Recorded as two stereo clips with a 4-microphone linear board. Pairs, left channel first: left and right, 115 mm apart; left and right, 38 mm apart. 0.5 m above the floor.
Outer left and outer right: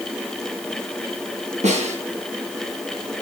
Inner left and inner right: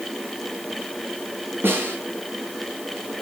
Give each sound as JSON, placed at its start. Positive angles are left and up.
{"t": 1.6, "sound": "a snare drum", "side_deg": -80, "distance_m": 7.0}